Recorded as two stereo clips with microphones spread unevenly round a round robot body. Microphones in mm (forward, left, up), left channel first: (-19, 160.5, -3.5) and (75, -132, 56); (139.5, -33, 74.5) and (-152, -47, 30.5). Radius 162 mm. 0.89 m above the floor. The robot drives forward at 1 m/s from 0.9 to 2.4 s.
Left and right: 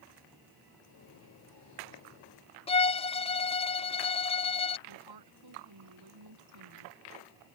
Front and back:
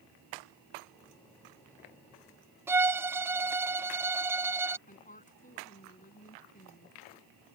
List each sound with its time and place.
2.7 s a violin: 125° left
4.9 s a woman speaking: 60° right